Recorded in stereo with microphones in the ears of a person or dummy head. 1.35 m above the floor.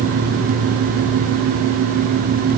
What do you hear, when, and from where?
Only background noise.